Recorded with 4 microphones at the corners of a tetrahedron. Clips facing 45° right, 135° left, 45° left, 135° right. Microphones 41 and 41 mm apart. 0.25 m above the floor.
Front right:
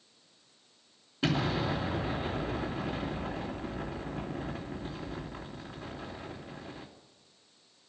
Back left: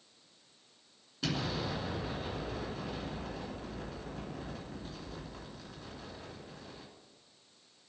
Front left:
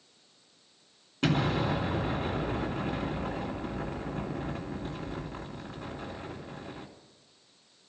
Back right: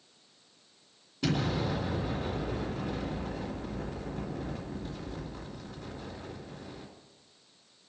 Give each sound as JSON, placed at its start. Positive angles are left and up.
{"t": 1.2, "sound": "an explosion", "azimuth_deg": 15, "distance_m": 3.0}